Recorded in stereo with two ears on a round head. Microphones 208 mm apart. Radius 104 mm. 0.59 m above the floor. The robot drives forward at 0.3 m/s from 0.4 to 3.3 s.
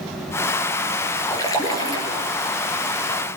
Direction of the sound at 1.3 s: 15° left (ahead or behind).